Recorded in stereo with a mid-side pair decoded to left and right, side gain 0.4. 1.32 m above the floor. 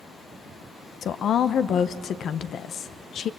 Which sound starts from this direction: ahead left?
A woman speaking, at 1.0 s.